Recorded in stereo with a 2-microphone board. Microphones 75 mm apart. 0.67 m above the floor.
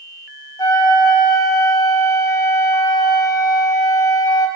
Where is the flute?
60° left (ahead or behind), 0.9 m.